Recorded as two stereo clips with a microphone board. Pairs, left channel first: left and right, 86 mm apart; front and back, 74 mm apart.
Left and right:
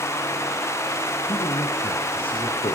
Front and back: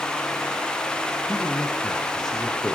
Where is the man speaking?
85° left, 6 m.